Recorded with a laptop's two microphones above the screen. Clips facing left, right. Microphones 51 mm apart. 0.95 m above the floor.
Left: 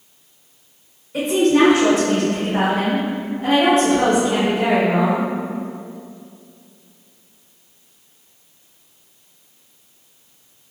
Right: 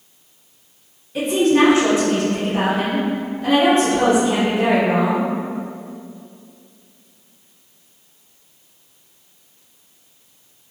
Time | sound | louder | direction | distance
1.1 | a woman speaking | even | 65° left (ahead or behind) | 1.6 m